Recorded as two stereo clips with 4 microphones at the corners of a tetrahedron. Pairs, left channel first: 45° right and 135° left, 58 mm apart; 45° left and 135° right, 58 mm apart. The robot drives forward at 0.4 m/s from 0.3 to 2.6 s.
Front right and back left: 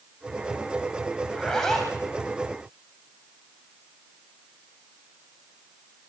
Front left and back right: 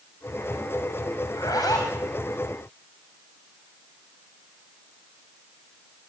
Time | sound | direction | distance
1.3 | a zipper | 45° left | 8.5 m